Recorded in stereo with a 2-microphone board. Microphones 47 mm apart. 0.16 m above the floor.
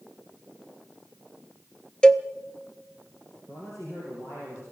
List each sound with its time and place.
2.0 s a cowbell: 20° left (ahead or behind), 0.7 m
3.5 s a man speaking: 80° left, 6 m